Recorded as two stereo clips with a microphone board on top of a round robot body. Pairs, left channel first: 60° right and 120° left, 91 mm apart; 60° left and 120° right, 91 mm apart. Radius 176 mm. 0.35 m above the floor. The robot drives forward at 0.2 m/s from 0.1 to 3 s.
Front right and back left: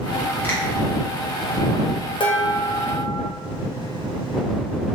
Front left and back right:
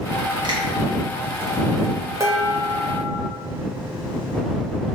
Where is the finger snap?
125° right, 1.7 m.